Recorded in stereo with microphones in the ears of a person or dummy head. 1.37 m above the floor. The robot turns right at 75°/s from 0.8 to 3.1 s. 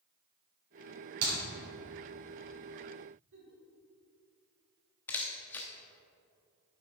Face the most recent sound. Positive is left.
turn(degrees=15)  # may be behind; listen again after turning